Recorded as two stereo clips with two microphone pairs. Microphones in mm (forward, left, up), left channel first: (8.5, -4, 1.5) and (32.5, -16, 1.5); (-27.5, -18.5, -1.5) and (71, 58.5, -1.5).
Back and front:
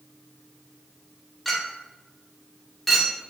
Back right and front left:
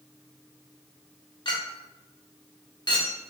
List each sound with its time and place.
1.4 s a clink: 125° right, 0.8 m